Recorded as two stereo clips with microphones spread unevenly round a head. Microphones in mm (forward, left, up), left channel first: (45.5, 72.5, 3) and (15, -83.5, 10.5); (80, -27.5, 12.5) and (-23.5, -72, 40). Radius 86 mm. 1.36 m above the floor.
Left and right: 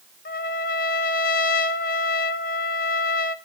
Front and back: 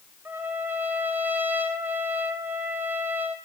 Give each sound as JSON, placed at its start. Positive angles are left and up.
{"t": 0.2, "sound": "a trumpet", "azimuth_deg": 125, "distance_m": 0.5}